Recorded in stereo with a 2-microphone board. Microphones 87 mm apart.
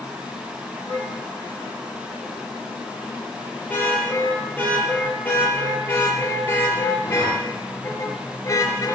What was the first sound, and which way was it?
A car horn, 15° left (ahead or behind).